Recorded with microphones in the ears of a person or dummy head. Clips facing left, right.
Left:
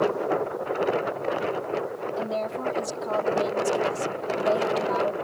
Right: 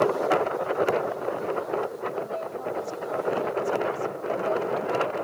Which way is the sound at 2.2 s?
90° left.